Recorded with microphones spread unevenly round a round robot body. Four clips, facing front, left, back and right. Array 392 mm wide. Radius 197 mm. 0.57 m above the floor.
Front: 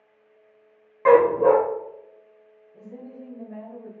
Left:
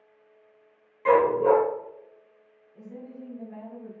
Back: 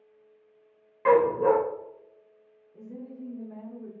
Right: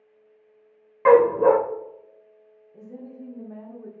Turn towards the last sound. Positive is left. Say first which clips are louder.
# right 2 dB, front 1 dB
turn(degrees=-105)